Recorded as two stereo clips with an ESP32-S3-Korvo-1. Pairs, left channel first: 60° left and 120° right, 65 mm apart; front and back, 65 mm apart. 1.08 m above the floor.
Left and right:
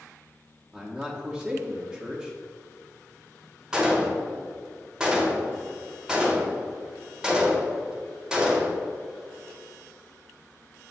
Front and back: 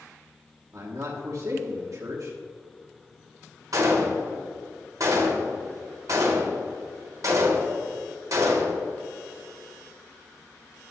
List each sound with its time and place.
0.7 s a man speaking: 165° left, 0.9 m
3.7 s a gunshot: 160° left, 1.3 m